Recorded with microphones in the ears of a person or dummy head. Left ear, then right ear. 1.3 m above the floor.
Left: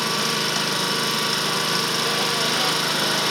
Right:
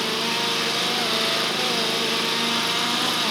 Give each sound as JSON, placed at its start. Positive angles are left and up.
{"t": 0.0, "sound": "an engine running", "side_deg": 60, "distance_m": 4.5}